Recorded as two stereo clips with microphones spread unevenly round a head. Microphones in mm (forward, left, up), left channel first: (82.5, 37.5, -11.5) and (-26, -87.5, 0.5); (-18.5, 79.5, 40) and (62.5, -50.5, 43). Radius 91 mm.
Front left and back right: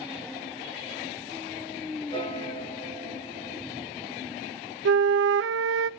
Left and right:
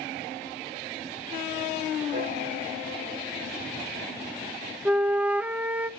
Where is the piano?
15° right, 8.5 m.